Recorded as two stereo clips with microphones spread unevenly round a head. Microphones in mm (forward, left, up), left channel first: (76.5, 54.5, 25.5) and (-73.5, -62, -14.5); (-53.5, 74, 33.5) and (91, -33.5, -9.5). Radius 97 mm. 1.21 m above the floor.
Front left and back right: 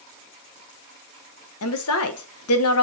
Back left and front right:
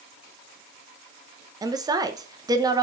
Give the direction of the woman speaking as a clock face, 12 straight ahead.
11 o'clock.